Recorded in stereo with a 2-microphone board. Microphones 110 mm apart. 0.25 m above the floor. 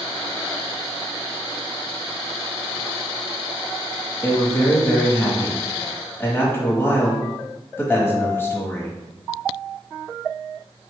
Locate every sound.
4.2 s a man speaking: 20° left (ahead or behind), 1.1 m